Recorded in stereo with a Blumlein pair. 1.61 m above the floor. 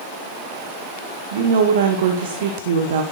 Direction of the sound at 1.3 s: 55° right.